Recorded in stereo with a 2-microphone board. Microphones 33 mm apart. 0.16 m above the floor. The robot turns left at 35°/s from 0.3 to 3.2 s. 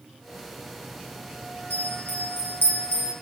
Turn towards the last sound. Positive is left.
turn(degrees=45)